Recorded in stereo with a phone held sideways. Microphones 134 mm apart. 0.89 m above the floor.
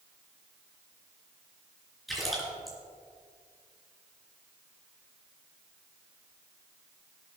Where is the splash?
Centre (ahead or behind), 3.5 m.